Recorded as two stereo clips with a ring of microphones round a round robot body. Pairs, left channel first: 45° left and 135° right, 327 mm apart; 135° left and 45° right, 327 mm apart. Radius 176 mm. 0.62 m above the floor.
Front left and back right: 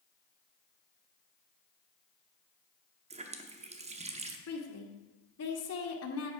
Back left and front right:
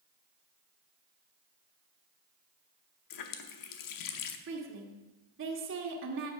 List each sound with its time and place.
3.1 s a running tap: 155° left, 0.9 m
4.5 s a woman speaking: 5° left, 1.8 m